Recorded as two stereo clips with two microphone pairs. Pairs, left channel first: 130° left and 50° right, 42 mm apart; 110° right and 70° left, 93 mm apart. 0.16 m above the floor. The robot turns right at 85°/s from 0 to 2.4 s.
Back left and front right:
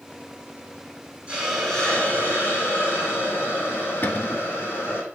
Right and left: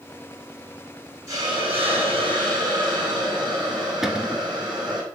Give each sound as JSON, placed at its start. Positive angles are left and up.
{"t": 1.3, "sound": "a hiss", "azimuth_deg": 15, "distance_m": 4.0}
{"t": 4.0, "sound": "a cupboard door", "azimuth_deg": 155, "distance_m": 0.8}